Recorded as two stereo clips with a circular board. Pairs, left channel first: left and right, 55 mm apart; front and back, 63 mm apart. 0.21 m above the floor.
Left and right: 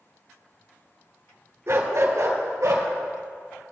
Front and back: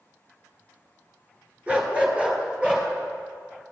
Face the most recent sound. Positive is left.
turn(degrees=-105)